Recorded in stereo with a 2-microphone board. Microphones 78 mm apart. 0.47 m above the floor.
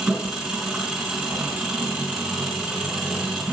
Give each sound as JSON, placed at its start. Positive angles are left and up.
{"t": 0.0, "sound": "an engine running", "side_deg": -10, "distance_m": 4.0}